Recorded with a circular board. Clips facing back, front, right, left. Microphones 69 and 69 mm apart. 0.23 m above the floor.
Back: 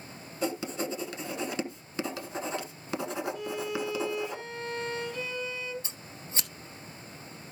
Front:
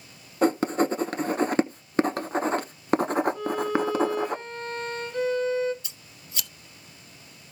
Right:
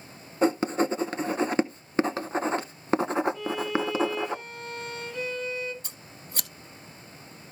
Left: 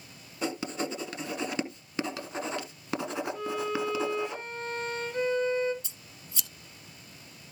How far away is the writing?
About 0.7 m.